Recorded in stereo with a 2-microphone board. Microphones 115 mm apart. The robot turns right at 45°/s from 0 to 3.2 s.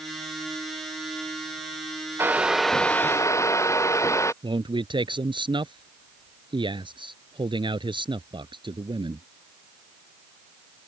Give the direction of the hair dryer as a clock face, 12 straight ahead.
1 o'clock.